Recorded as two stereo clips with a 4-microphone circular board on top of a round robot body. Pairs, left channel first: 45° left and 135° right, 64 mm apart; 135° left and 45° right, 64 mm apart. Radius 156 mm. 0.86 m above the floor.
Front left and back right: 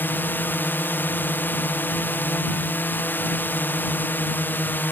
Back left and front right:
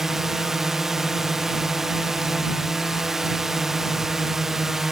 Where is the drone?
35° left.